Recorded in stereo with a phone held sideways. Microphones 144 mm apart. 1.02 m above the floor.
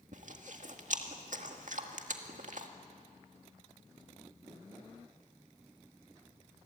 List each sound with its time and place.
0.1 s chewing: 65° right (ahead or behind), 1.9 m